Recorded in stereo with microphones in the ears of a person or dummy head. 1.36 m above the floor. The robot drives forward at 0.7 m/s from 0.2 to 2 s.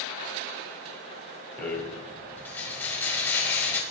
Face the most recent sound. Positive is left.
turn(degrees=10)  # may be behind; listen again after turning